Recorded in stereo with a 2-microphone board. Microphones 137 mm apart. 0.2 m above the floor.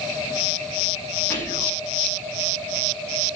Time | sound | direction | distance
1.3 | whispering | 15° left (ahead or behind) | 1.1 m